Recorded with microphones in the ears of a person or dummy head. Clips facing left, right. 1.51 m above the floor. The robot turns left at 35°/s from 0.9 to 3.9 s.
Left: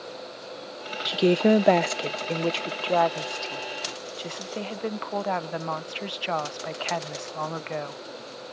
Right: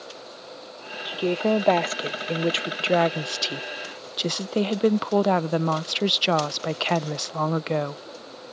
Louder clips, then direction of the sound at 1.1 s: Left 3 dB; 35° left.